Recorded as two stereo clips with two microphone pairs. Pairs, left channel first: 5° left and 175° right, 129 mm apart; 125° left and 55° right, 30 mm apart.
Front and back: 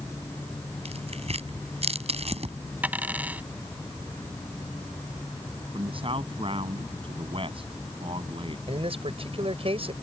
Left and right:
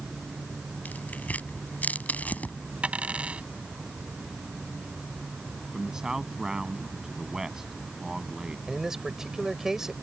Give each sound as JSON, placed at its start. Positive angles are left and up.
{"t": 0.8, "sound": "tearing paper", "azimuth_deg": 150}
{"t": 2.8, "sound": "a dropped coin", "azimuth_deg": -95}
{"t": 5.7, "sound": "a man speaking", "azimuth_deg": -130}
{"t": 8.7, "sound": "a man speaking", "azimuth_deg": -130}